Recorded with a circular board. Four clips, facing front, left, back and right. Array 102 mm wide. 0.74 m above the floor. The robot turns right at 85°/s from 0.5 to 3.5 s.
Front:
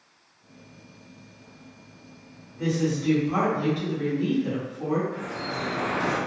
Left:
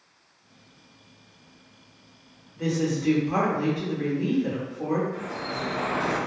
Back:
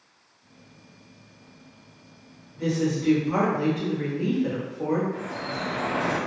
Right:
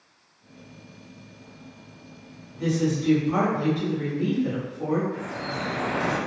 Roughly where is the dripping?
Ahead right.